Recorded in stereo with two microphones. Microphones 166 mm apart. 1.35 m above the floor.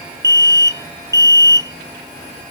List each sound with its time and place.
0.2 s an alarm: 20° right (ahead or behind)